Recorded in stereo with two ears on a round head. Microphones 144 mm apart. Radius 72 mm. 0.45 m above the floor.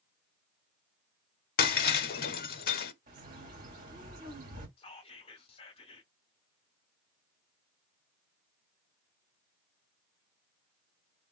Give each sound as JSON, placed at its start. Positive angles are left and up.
{"t": 1.6, "sound": "breaking glass", "side_deg": 55, "distance_m": 0.7}
{"t": 3.1, "sound": "a bird", "side_deg": -55, "distance_m": 1.8}
{"t": 4.8, "sound": "whispering", "side_deg": 35, "distance_m": 1.0}